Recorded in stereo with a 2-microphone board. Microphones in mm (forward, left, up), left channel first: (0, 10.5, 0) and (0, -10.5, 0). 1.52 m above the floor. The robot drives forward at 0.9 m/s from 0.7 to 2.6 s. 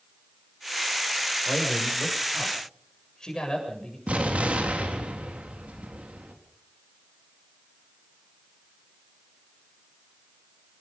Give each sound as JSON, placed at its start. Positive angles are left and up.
{"t": 1.4, "sound": "a man speaking", "side_deg": 35, "distance_m": 6.5}
{"t": 4.1, "sound": "an explosion", "side_deg": -80, "distance_m": 3.5}